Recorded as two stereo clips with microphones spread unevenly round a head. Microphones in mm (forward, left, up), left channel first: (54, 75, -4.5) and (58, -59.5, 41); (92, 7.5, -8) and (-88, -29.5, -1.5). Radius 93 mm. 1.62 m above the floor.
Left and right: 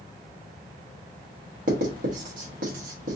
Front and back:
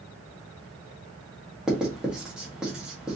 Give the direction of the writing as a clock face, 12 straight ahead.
3 o'clock.